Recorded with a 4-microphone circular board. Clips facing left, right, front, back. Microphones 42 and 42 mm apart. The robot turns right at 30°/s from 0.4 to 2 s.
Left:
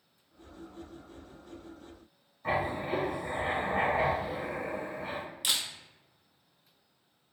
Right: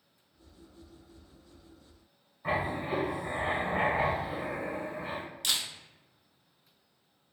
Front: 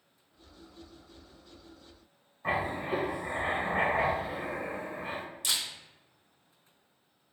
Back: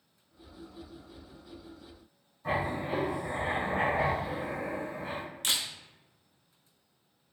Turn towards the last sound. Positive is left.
turn(degrees=170)